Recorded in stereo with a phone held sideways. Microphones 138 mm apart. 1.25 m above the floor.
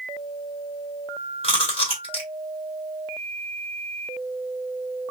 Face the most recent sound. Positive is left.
turn(degrees=45)  # may be behind; listen again after turning